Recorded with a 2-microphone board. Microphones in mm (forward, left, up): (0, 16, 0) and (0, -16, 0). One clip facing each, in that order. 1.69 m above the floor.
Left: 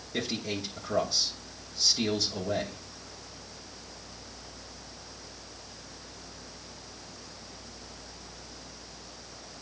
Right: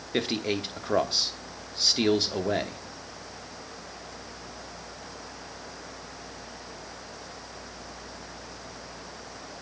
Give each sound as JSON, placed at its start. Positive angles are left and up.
{"t": 0.1, "sound": "a man speaking", "side_deg": -45, "distance_m": 0.9}